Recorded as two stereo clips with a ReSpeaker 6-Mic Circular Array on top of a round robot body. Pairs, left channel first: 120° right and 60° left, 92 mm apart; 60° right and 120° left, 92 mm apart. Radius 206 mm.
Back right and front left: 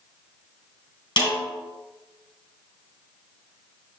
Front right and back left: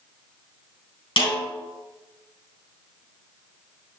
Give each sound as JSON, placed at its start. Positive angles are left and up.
{"t": 1.2, "sound": "a snare drum", "azimuth_deg": -75, "distance_m": 4.0}